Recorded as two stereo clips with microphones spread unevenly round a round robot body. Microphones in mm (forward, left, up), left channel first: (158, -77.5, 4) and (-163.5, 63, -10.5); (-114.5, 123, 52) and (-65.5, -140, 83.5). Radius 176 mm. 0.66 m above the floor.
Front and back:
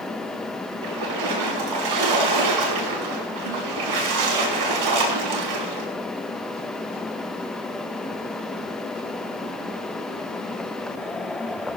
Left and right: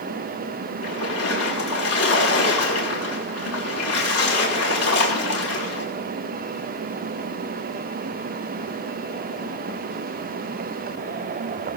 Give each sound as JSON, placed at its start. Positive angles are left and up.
{"t": 0.8, "sound": "a splash", "azimuth_deg": 135, "distance_m": 5.5}